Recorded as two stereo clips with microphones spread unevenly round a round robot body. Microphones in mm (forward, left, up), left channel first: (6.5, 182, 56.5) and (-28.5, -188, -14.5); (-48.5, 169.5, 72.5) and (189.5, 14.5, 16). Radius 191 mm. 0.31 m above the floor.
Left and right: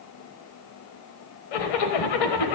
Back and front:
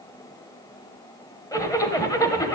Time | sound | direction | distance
1.5 | a zipper | 60° left | 1.1 m